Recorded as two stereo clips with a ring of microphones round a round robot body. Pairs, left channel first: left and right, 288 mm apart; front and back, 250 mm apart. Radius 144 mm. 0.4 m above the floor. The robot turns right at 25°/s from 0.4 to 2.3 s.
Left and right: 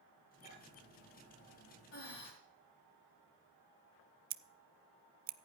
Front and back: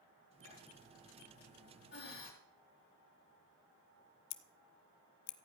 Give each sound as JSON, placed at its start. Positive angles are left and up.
{"t": 0.4, "sound": "a clink", "azimuth_deg": 20, "distance_m": 7.5}
{"t": 1.9, "sound": "breathing", "azimuth_deg": 45, "distance_m": 4.0}
{"t": 4.3, "sound": "scissors", "azimuth_deg": -30, "distance_m": 0.6}